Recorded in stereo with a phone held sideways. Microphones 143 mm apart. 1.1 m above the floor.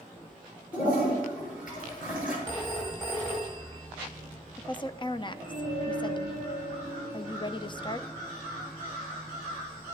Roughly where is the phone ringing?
Left.